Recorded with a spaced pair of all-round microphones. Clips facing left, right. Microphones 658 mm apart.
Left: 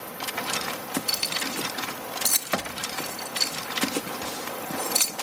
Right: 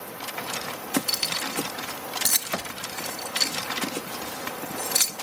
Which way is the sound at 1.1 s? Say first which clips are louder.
Left 1 dB; 45° right (ahead or behind).